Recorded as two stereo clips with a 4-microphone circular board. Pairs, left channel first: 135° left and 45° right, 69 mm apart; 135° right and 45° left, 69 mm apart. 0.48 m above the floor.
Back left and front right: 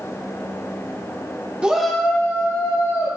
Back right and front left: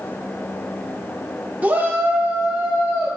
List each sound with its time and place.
1.6 s a shout: 15° left, 0.8 m; by 3.1 s 115° left, 1.6 m